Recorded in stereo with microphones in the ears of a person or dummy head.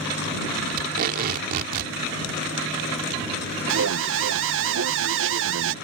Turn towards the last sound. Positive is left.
turn(degrees=-65)  # may be behind; listen again after turning